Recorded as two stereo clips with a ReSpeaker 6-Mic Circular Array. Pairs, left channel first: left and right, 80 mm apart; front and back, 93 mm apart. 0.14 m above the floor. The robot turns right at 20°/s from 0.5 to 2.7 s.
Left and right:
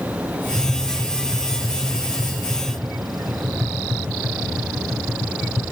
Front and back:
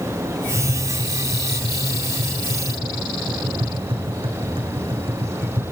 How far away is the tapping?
About 5.5 m.